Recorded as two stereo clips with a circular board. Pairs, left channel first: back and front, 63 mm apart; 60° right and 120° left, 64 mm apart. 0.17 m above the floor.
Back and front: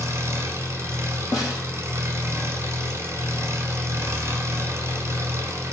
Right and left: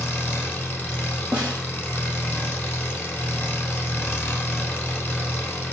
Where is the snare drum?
165° right, 1.5 m.